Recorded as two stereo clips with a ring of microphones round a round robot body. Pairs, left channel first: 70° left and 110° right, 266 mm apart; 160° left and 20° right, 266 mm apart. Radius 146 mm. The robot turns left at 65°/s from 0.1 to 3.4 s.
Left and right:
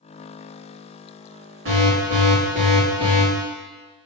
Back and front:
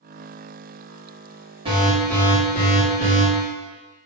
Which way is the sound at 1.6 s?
90° right.